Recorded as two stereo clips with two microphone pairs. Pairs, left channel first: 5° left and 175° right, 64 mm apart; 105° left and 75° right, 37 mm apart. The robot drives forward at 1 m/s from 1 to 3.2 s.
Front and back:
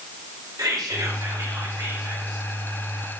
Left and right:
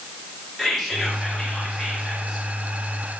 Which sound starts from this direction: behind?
Whispering, at 0.6 s.